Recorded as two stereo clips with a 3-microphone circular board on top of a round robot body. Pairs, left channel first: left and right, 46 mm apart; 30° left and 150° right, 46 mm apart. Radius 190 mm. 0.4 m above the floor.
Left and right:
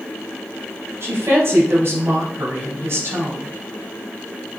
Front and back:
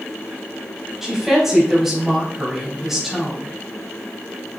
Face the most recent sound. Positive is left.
turn(degrees=-65)